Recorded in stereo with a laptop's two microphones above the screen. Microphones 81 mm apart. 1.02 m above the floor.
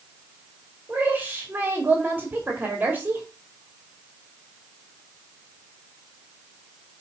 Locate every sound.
0.9 s a woman speaking: 20° right (ahead or behind), 2.5 m